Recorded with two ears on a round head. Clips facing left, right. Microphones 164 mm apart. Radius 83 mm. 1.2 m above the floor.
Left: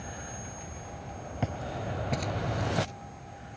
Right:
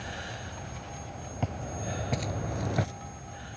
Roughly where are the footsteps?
Centre.